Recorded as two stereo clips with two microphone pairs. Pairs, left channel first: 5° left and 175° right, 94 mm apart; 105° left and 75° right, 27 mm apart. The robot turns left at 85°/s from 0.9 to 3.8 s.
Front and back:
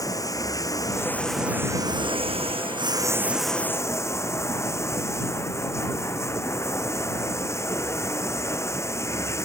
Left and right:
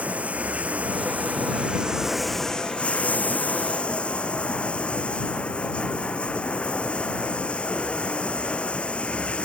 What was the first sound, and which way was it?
Running water, 50° right.